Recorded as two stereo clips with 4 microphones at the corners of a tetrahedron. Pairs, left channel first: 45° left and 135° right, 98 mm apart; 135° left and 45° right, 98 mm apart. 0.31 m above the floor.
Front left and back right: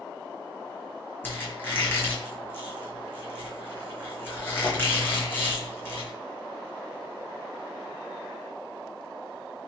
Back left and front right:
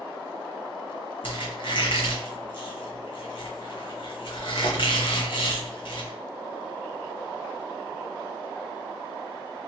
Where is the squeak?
110° left, 0.9 m.